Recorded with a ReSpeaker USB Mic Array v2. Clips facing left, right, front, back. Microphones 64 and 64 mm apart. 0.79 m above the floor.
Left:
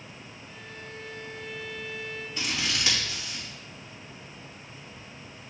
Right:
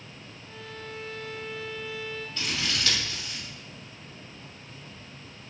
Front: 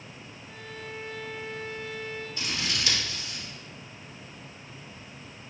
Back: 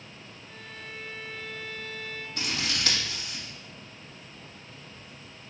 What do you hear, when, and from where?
0.5 s a violin: 80° right, 1.5 m
2.4 s scissors: 160° left, 2.5 m